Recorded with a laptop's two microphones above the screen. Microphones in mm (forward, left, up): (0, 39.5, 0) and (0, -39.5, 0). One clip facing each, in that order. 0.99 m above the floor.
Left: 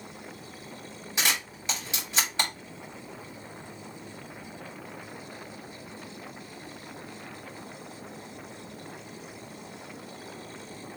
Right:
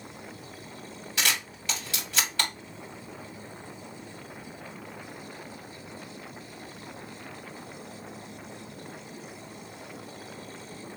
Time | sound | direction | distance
1.2 | a camera shutter | 20° left (ahead or behind) | 3 m